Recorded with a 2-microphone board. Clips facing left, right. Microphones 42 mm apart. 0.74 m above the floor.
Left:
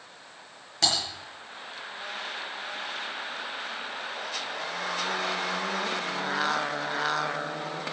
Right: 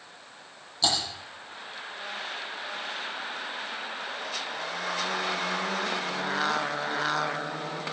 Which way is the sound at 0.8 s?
75° left (ahead or behind).